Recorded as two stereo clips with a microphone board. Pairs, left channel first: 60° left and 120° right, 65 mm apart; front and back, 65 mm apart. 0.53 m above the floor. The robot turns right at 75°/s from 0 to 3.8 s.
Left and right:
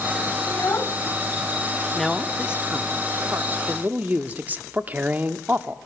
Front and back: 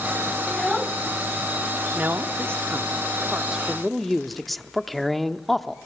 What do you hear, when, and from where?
0.5 s a child speaking: 70° left, 1.1 m; by 1.0 s 110° left, 1.1 m
1.9 s a man speaking: 135° left, 0.7 m; by 5.8 s 85° right, 0.7 m